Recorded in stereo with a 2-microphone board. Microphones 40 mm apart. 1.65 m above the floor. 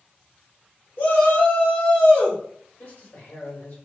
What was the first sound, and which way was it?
A shout, 75° left (ahead or behind).